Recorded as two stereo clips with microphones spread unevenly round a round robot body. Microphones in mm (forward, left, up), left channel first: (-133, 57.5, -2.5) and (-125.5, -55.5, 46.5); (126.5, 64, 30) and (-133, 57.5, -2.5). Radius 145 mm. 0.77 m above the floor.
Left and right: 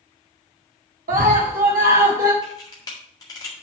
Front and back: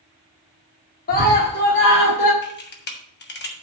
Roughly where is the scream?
Ahead right.